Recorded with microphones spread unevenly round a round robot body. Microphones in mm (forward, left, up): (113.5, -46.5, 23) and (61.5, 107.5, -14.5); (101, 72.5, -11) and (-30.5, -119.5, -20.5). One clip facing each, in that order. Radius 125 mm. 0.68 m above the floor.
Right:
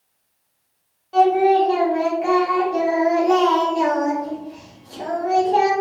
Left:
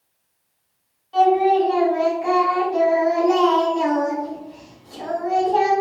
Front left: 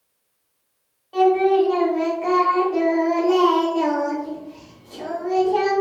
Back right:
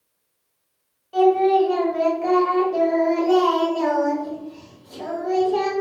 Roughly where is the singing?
Ahead right.